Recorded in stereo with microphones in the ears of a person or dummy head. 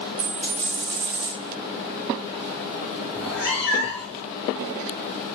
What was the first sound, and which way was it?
A dropped coin, 40° right (ahead or behind).